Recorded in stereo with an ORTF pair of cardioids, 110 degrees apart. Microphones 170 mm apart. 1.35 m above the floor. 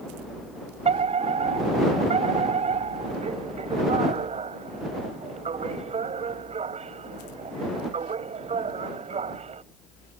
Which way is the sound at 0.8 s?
35° right.